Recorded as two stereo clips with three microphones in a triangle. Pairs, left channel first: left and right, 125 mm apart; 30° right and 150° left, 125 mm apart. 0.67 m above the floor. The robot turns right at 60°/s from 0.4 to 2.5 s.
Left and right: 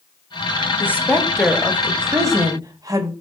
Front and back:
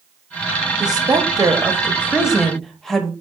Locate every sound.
0.8 s a woman speaking: 145° left, 1.2 m; by 3.1 s 115° right, 1.2 m